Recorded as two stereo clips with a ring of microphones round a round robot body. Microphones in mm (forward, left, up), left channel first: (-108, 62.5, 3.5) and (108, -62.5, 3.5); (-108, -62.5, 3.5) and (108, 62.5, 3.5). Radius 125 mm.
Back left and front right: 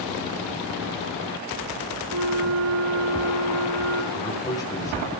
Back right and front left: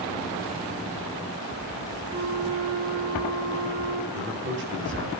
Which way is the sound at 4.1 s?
75° left.